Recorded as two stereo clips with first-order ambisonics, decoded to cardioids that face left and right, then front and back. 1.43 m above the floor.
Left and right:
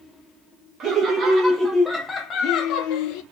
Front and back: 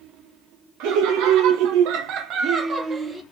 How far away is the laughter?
About 1.4 m.